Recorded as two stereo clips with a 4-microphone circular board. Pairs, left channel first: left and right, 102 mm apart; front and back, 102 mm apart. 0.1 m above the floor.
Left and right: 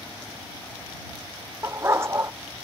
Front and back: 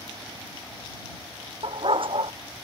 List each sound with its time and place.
1.6 s a dog barking: 155° right